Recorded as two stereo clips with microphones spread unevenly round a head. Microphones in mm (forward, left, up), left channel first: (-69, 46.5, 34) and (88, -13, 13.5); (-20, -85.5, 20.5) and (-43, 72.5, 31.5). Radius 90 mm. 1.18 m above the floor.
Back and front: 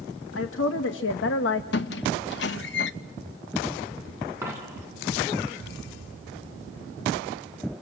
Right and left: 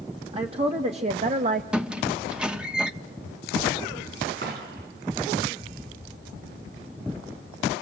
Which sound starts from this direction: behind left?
A woman speaking, at 0.3 s.